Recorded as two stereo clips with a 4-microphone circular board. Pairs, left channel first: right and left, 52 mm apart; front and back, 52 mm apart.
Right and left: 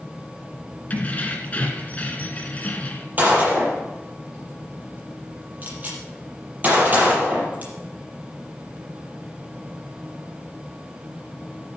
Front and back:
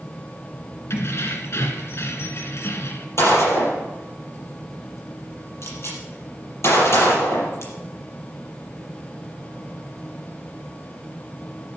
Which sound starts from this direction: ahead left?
A gunshot, at 3.2 s.